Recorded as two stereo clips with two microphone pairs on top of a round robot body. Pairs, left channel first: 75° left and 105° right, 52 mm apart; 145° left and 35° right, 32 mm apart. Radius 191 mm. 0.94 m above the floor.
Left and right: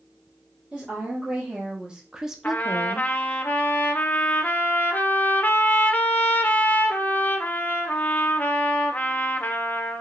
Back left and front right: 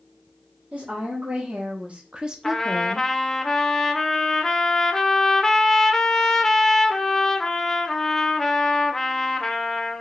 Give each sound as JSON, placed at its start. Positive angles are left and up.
{"t": 0.7, "sound": "a woman speaking", "azimuth_deg": -35, "distance_m": 1.2}
{"t": 2.4, "sound": "a trumpet", "azimuth_deg": 70, "distance_m": 0.7}